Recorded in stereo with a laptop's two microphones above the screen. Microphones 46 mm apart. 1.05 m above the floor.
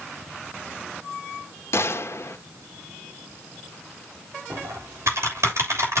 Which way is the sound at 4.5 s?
65° right (ahead or behind).